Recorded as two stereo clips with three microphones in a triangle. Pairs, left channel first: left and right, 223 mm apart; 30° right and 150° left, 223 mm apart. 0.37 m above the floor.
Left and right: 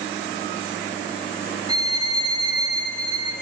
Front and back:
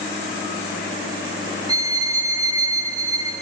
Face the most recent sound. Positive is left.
turn(degrees=30)